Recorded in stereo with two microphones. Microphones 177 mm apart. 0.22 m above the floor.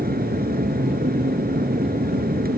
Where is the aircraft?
60° right (ahead or behind).